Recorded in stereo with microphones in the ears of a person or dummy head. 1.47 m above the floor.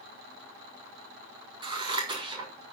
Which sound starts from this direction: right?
Scissors, at 1.6 s.